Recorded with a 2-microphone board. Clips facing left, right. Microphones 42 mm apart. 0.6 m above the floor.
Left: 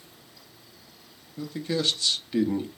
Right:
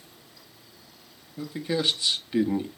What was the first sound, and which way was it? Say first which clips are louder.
A man speaking: right 1 dB; 15° right (ahead or behind).